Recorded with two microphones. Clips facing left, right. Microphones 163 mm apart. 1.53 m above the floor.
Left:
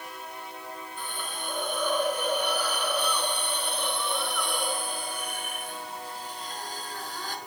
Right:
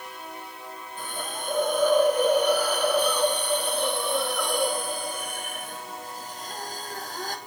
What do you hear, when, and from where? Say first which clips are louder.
1.0 s a hiss: right 6 dB; 45° right (ahead or behind), 3 m